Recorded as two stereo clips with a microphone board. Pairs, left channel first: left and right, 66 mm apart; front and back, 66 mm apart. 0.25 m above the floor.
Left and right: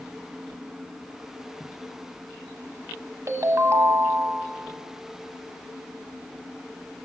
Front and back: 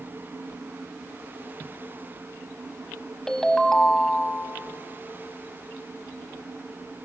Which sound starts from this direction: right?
A ringtone, at 3.3 s.